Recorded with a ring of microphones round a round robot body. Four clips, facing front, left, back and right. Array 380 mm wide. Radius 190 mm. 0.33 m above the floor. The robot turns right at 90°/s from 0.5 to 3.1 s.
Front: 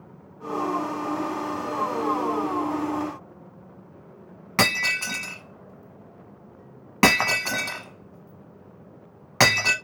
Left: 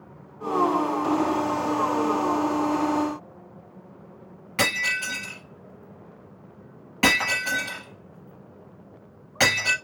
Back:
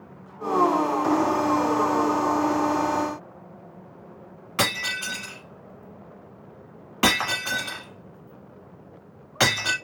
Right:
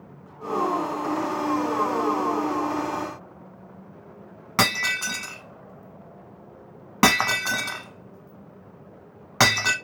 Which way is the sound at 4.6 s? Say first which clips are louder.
Right 2 dB, front 3 dB; 45° right.